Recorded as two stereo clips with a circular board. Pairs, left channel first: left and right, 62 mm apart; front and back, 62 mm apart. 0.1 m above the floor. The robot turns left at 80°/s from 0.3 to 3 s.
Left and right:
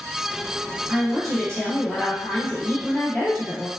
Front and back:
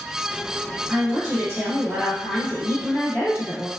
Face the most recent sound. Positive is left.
turn(degrees=35)